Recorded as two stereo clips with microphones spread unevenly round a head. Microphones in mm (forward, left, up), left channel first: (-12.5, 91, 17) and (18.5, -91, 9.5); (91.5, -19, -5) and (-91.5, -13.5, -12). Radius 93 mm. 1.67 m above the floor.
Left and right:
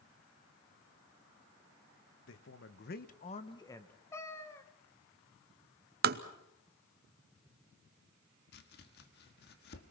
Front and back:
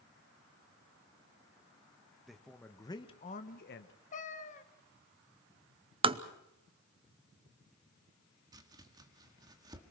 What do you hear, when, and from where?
2.3 s a man speaking: 90° left, 1.5 m; by 3.9 s 20° left, 1.3 m
4.1 s a cat meowing: 30° left, 1.3 m
6.0 s tapping: 120° right, 0.8 m
8.5 s chopping: 110° left, 1.6 m